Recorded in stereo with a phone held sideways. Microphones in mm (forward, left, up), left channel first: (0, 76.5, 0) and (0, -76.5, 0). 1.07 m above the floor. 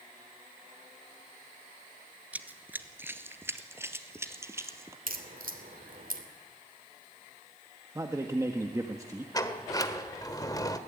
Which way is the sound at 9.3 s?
25° left (ahead or behind).